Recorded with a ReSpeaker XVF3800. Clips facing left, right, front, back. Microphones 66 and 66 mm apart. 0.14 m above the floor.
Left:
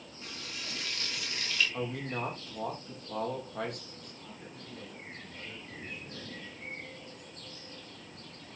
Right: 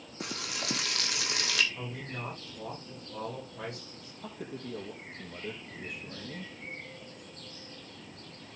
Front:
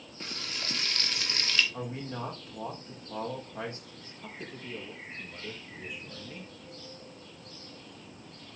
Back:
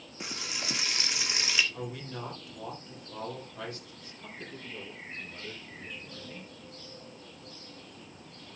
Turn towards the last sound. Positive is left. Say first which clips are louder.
# right 11 dB, front 2 dB
turn(degrees=-80)